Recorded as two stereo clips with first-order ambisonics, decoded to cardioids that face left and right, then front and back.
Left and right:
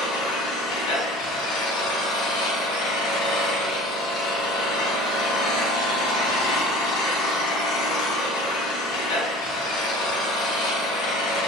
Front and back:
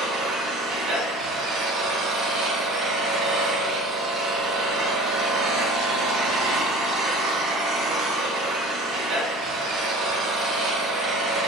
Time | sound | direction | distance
0.0 | an engine running | 120° left | 3.5 m